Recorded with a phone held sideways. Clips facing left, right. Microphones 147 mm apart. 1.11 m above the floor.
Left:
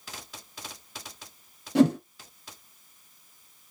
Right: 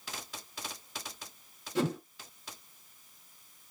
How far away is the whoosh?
About 1.2 m.